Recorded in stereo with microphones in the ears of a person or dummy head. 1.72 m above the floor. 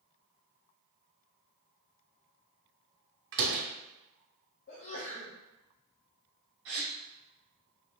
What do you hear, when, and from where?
3.3 s a door slam: 50° right (ahead or behind), 0.9 m
4.7 s a sneeze: 45° left (ahead or behind), 0.8 m
6.7 s a gasp: 50° right (ahead or behind), 0.9 m